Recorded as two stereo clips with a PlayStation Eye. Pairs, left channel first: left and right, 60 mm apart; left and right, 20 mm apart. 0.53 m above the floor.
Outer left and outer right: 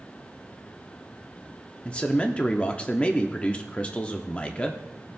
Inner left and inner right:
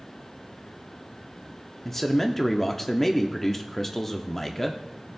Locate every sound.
1.9 s a man speaking: 20° left (ahead or behind), 0.6 m